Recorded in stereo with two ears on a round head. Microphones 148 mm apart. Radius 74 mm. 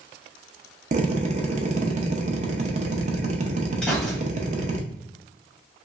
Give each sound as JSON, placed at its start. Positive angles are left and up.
{"t": 0.9, "sound": "a drill", "side_deg": -45, "distance_m": 0.6}
{"t": 3.8, "sound": "a gunshot", "side_deg": 5, "distance_m": 1.5}